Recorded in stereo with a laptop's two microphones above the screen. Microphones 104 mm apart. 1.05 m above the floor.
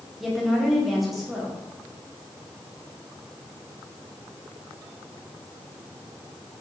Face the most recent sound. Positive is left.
turn(degrees=0)  # may be behind; listen again after turning